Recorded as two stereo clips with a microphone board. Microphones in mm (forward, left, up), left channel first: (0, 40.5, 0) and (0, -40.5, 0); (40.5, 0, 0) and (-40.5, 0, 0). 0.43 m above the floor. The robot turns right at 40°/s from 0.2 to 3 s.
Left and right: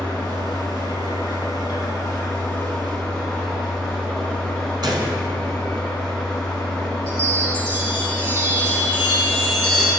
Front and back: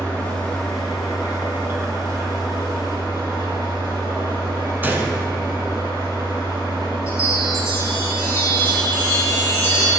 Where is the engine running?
60° left, 3 m; by 10.0 s 175° left, 3 m.